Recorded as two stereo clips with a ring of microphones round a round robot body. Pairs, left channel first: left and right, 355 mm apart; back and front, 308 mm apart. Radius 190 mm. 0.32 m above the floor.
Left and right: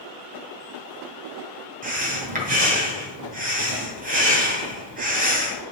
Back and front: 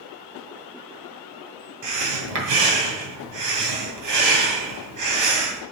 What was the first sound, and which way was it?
Breathing, 25° right.